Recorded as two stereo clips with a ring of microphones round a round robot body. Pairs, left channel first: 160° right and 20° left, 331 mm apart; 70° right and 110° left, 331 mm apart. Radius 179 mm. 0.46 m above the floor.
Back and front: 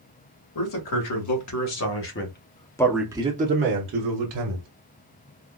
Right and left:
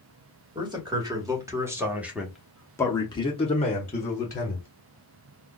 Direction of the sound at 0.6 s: 170° right.